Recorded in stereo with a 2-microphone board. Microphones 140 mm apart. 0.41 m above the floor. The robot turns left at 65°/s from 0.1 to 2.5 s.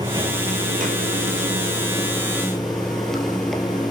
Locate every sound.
0.0 s running water: 25° right, 3 m; by 3.9 s 175° left, 3 m